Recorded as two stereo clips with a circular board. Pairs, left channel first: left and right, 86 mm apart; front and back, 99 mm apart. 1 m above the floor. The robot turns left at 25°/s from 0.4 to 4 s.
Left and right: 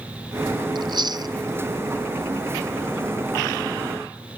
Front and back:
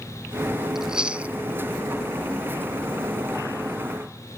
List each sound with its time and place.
0.8 s chewing: 95° right; by 1.4 s 110° right